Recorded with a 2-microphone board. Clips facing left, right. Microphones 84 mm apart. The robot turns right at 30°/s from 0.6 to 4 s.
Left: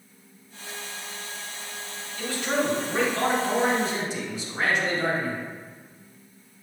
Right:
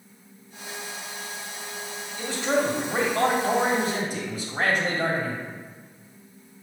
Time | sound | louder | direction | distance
2.2 | a man speaking | right 2 dB | 150° right | 1.9 m